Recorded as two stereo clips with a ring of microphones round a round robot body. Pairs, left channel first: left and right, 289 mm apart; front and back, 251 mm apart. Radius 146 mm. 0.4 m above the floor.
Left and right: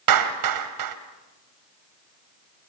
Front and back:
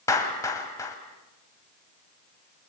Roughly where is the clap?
Right.